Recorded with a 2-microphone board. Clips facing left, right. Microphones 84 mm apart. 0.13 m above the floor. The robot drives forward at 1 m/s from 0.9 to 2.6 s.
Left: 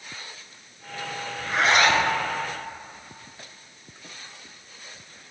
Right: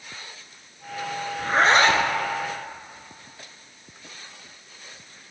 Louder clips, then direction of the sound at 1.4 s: Right 2 dB; 40° right (ahead or behind).